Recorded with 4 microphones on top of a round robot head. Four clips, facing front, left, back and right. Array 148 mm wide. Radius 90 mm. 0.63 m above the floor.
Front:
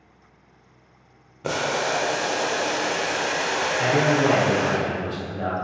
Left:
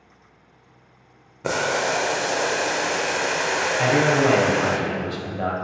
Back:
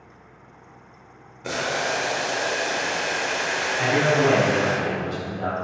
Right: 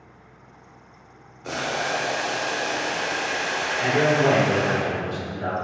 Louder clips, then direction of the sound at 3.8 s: Left 1 dB, back 1 dB; 80° left.